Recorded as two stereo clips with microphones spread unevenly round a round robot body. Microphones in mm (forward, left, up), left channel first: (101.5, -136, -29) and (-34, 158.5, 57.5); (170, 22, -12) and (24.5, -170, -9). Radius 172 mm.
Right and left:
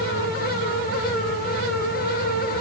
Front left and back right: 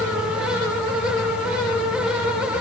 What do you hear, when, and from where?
Only background noise.